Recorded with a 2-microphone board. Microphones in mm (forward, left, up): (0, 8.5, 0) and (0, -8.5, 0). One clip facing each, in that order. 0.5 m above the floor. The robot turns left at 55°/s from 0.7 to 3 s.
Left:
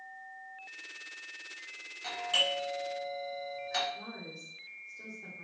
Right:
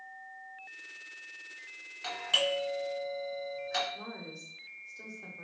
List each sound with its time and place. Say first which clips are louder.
2.0 s a doorbell: right 1 dB; 30° right (ahead or behind), 1.3 m; by 3.8 s 10° right (ahead or behind), 1.3 m
3.9 s a woman speaking: right 1 dB; 35° right (ahead or behind), 1.2 m